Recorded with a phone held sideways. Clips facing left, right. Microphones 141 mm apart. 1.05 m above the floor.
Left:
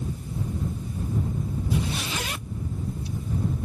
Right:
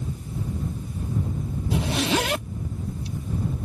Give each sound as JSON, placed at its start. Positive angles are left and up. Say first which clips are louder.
{"t": 1.7, "sound": "a zipper", "louder": "right 8 dB", "side_deg": -80}